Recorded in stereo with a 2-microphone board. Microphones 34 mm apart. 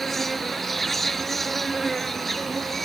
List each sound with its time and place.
0.0 s an insect: 5° left (ahead or behind)